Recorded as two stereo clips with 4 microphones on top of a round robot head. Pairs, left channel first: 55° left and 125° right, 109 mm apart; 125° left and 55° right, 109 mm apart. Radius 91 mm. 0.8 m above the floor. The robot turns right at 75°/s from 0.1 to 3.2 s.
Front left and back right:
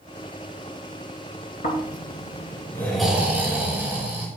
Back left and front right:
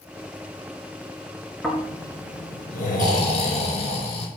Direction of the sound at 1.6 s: 40° left.